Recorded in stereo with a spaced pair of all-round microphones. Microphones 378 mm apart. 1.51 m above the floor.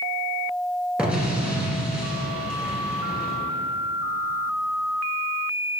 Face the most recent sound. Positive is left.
turn(degrees=0)  # may be behind; listen again after turning